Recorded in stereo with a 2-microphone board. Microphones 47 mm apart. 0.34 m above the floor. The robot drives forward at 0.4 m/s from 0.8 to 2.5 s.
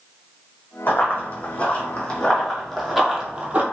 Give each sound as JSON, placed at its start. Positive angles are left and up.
{"t": 0.9, "sound": "running footsteps", "side_deg": 40, "distance_m": 1.2}